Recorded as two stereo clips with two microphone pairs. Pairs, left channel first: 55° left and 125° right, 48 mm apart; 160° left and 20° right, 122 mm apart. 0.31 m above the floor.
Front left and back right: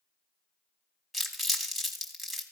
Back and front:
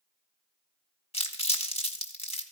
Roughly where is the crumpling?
Behind left.